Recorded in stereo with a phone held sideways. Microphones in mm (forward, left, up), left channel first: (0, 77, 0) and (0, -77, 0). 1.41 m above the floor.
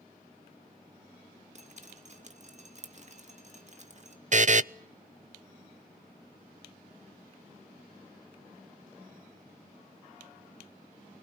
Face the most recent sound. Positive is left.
turn(degrees=-55)  # may be behind; listen again after turning